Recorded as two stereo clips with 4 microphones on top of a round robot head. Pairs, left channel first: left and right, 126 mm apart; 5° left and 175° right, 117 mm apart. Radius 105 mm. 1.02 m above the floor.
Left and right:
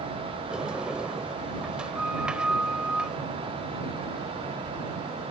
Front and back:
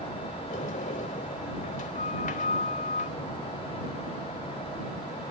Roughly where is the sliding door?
Ahead.